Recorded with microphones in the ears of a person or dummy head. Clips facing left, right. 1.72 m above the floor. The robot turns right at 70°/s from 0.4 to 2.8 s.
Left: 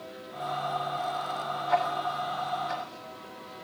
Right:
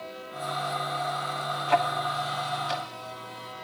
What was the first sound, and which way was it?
Ticking, 35° right (ahead or behind).